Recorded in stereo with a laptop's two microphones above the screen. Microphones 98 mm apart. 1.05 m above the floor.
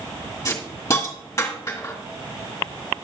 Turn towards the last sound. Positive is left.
turn(degrees=30)  # may be behind; listen again after turning